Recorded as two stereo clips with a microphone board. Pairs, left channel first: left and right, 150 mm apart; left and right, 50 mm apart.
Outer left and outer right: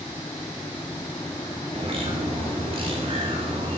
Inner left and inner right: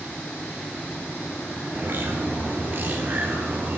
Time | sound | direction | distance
1.7 | a bird | 40° right (ahead or behind) | 2.5 m